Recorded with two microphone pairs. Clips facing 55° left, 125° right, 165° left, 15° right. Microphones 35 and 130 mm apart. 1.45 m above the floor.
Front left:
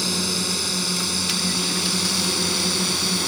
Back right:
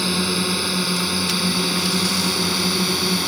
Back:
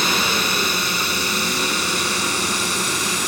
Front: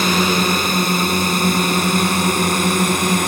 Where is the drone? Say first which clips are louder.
Back right 4 dB, front 6 dB; 55° right; by 3.3 s 50° right.